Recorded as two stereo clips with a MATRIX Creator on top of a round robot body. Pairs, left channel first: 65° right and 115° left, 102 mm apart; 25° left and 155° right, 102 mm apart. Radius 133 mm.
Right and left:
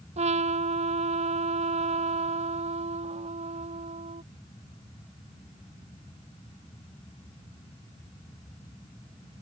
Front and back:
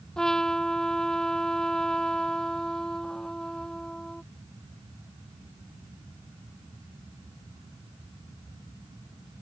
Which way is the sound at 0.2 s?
105° left.